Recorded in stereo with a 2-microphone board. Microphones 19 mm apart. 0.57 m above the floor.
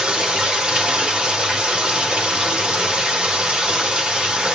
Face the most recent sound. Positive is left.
turn(degrees=-65)  # may be behind; listen again after turning